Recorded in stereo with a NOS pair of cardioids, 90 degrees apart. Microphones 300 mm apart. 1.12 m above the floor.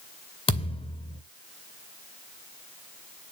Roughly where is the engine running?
I don't hear an engine running.